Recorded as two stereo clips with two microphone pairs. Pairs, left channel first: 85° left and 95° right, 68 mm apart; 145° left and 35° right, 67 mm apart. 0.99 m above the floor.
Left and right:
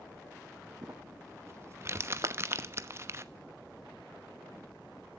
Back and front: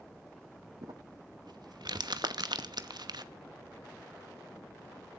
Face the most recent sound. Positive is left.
turn(degrees=-65)